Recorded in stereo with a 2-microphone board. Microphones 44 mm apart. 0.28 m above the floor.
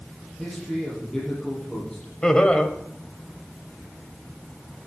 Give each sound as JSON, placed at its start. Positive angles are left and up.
{"t": 0.4, "sound": "a man speaking", "side_deg": 10, "distance_m": 6.0}
{"t": 2.2, "sound": "laughter", "side_deg": 20, "distance_m": 1.1}